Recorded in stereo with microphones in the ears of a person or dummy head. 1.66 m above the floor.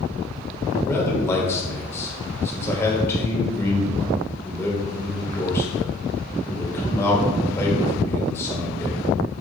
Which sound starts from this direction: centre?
A man speaking, at 0.8 s.